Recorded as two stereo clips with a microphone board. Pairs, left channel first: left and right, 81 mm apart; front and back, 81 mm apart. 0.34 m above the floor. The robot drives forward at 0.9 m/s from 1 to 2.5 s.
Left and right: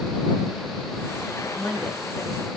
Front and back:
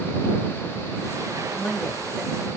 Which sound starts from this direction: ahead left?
A woman speaking, at 1.6 s.